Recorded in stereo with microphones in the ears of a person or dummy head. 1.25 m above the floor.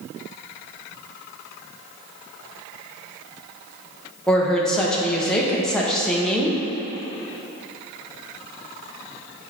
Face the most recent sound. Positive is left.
turn(degrees=0)  # may be behind; listen again after turning